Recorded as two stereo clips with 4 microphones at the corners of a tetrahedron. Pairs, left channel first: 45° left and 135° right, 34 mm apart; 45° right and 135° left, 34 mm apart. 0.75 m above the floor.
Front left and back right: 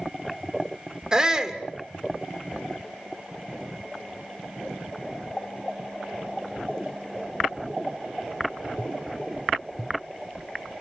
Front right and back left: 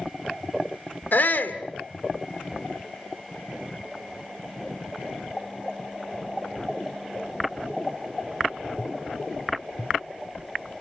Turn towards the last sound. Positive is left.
turn(degrees=-65)